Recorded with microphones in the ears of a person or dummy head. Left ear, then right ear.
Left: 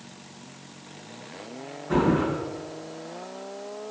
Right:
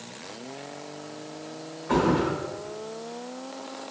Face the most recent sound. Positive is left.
turn(degrees=-45)  # may be behind; listen again after turning